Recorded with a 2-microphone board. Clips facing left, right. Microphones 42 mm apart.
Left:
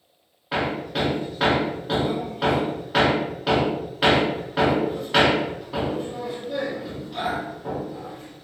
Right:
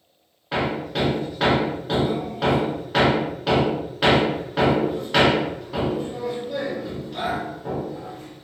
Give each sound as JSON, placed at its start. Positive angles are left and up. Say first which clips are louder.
{"t": 0.5, "sound": "hammering", "louder": "right 1 dB", "side_deg": 0, "distance_m": 0.7}